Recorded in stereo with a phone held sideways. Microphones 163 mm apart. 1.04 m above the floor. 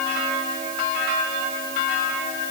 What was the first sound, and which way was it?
Only background noise.